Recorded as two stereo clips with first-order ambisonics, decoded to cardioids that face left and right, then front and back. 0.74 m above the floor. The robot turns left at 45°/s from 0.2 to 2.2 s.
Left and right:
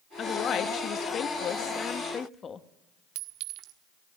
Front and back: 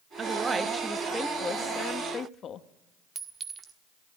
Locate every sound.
0.2 s a woman speaking: 125° left, 0.9 m; by 2.6 s 35° left, 0.9 m
3.1 s a clink: 110° right, 1.3 m